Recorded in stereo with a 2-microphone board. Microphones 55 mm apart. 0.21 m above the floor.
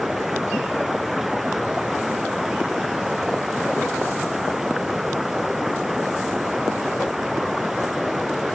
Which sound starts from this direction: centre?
Running water, at 0.0 s.